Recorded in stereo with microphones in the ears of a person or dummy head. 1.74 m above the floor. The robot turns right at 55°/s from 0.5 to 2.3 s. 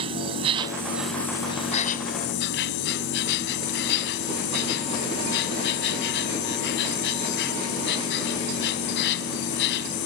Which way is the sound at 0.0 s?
30° right.